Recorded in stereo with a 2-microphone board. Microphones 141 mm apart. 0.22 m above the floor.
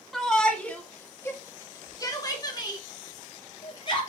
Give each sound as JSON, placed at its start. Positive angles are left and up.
{"t": 0.1, "sound": "a shout", "side_deg": 0, "distance_m": 1.4}